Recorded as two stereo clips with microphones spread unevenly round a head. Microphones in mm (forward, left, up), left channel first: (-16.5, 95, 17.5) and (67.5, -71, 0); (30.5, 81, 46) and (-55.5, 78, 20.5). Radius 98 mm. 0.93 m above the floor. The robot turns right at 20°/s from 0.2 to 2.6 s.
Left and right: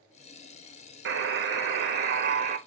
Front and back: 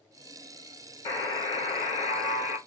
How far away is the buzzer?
About 0.9 m.